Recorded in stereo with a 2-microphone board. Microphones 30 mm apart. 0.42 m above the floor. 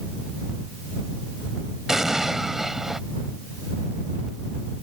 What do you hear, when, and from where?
1.9 s an explosion: 15° right (ahead or behind)